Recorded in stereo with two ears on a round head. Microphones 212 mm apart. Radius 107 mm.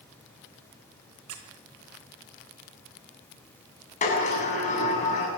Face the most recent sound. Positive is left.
turn(degrees=30)  # may be behind; listen again after turning